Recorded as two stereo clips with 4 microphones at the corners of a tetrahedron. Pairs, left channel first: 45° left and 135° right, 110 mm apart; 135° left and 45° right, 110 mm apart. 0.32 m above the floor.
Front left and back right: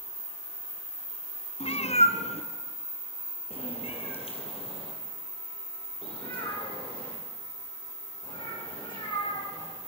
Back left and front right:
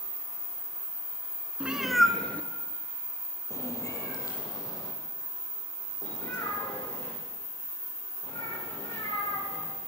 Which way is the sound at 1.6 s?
30° left.